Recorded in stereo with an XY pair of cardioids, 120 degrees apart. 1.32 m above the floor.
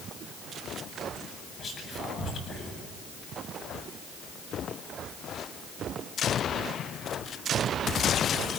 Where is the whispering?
40° left, 8.5 m.